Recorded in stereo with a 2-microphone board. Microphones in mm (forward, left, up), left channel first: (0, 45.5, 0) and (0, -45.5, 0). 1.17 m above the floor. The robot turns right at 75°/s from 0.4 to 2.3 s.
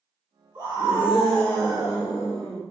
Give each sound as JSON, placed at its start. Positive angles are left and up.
{"t": 0.6, "sound": "a scream", "azimuth_deg": -55, "distance_m": 1.6}